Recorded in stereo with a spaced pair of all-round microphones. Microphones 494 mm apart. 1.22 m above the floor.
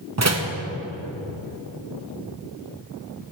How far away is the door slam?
About 0.7 m.